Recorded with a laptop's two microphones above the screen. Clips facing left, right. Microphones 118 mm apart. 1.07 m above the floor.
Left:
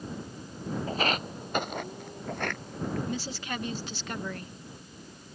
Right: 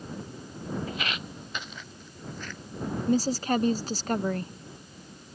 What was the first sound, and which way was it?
Footsteps, 35° left (ahead or behind).